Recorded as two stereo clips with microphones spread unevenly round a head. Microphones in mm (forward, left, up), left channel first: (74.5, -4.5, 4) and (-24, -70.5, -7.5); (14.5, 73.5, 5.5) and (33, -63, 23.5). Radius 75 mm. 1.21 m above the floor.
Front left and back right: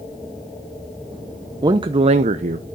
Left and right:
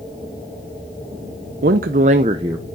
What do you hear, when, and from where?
1.6 s a man speaking: 95° right, 0.6 m; by 2.6 s 155° right, 0.7 m